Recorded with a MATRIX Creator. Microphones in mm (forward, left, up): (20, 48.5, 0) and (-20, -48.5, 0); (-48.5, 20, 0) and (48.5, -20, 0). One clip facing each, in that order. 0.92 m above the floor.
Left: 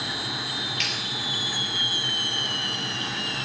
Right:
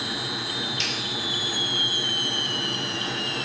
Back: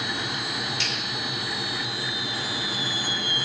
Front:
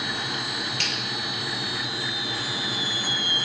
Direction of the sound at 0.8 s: 55° right.